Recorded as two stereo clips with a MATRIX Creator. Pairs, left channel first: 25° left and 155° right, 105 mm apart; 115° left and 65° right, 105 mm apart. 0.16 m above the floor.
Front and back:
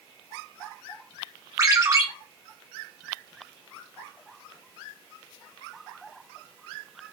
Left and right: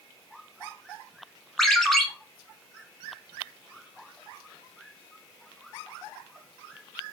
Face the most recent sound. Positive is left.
turn(degrees=-160)